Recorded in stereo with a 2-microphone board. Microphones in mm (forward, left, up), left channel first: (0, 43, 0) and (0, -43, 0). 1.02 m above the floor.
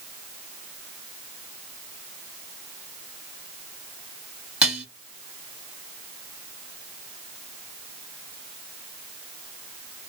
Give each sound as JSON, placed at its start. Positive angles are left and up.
{"t": 4.6, "sound": "dishes clattering", "side_deg": -15, "distance_m": 1.2}